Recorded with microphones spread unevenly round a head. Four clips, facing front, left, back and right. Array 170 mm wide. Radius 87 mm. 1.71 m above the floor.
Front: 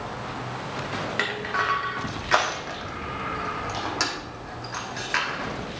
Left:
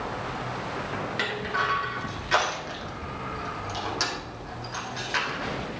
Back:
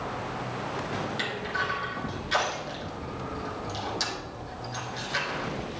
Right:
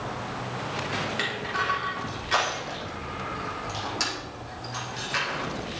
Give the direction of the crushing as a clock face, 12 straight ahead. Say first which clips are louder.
Left 1 dB, front 4 dB; 12 o'clock.